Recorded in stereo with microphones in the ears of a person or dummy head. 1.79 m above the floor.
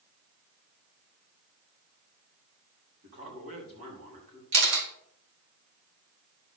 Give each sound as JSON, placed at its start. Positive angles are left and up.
{"t": 3.0, "sound": "a man speaking", "side_deg": -40, "distance_m": 4.5}
{"t": 4.5, "sound": "a camera shutter", "side_deg": -70, "distance_m": 3.5}